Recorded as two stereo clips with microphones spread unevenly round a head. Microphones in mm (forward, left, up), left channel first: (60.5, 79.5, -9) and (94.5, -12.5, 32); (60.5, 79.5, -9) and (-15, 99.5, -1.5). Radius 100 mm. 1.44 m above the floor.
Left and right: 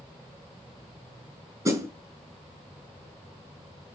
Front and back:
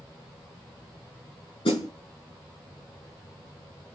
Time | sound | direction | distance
1.6 | a snare drum | 25° right | 4 m